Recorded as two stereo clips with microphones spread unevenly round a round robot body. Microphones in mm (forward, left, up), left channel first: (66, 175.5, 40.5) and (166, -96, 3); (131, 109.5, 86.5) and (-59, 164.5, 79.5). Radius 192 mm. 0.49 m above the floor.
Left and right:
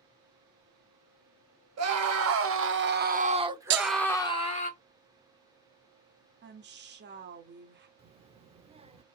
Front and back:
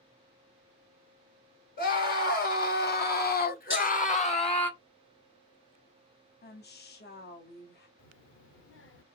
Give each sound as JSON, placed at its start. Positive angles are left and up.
{"t": 1.8, "sound": "a scream", "azimuth_deg": -60, "distance_m": 1.7}
{"t": 3.7, "sound": "breaking glass", "azimuth_deg": -70, "distance_m": 1.2}
{"t": 6.4, "sound": "a woman speaking", "azimuth_deg": -35, "distance_m": 1.1}
{"t": 8.0, "sound": "a child speaking", "azimuth_deg": 0, "distance_m": 0.9}